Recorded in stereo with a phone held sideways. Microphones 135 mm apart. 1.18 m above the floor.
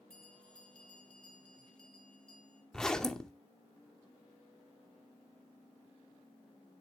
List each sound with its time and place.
0.1 s a bell: 5° left (ahead or behind), 3.5 m
2.7 s a zipper: 5° left (ahead or behind), 1.0 m